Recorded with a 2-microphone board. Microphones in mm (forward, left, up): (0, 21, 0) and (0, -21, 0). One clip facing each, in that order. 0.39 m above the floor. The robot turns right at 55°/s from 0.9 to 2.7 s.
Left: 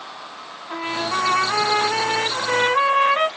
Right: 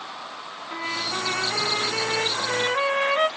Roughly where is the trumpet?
Ahead left.